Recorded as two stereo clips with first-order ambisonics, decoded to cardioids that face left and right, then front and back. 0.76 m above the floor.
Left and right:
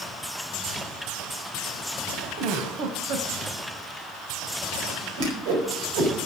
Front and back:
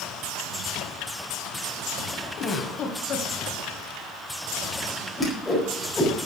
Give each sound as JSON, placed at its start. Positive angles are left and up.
{"t": 2.4, "sound": "a giggle", "azimuth_deg": -60, "distance_m": 1.7}
{"t": 5.2, "sound": "a whoosh", "azimuth_deg": -85, "distance_m": 4.5}